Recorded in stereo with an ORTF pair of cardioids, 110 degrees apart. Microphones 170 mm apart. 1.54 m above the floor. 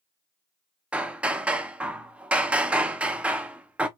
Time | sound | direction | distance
0.9 | hammering | 5° right | 0.7 m